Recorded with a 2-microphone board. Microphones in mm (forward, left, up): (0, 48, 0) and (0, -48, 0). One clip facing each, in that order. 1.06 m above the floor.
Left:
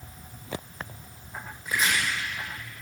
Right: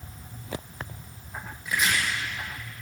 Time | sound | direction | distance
1.6 | chopping | 35° left (ahead or behind) | 9.5 m